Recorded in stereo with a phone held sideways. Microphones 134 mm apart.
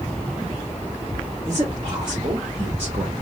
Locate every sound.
1.4 s a man speaking: 25° right (ahead or behind), 1.7 m; by 3.1 s 50° right (ahead or behind), 1.2 m